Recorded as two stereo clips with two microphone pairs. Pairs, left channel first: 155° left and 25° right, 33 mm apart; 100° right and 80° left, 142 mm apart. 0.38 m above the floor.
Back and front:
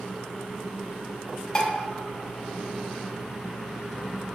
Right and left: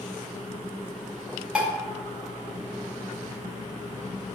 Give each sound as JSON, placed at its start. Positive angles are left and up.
{"t": 1.6, "sound": "dishes clattering", "azimuth_deg": 155, "distance_m": 0.6}